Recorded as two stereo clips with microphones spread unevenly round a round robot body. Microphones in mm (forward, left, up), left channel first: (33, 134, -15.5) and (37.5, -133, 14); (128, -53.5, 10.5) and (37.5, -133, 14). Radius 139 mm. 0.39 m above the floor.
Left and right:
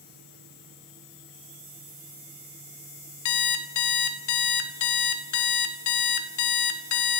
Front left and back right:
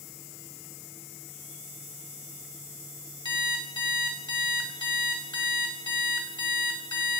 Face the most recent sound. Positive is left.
turn(degrees=105)